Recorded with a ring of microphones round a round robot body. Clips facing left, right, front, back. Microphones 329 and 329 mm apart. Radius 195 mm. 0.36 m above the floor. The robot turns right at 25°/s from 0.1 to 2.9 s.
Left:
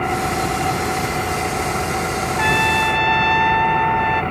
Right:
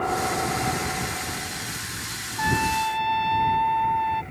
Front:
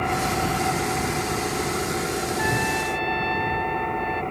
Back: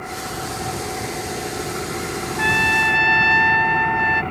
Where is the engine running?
45° left; by 4.3 s 115° left.